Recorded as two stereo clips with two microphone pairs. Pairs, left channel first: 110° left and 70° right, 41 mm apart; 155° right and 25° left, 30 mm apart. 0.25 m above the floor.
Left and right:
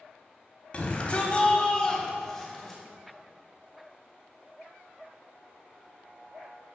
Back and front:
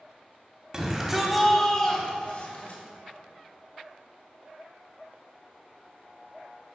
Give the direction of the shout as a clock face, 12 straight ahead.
10 o'clock.